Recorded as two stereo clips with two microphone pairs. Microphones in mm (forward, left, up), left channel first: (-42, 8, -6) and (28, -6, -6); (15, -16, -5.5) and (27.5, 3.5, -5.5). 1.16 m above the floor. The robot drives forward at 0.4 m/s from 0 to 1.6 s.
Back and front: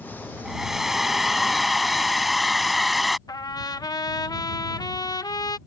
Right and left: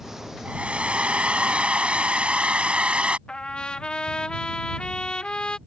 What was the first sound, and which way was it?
A hair dryer, 75° left.